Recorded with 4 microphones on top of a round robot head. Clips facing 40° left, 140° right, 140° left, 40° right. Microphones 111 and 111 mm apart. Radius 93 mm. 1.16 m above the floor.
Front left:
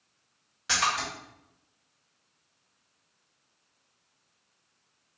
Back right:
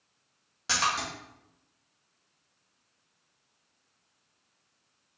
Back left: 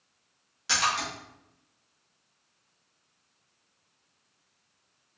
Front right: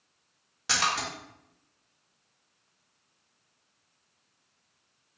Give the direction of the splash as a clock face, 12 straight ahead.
3 o'clock.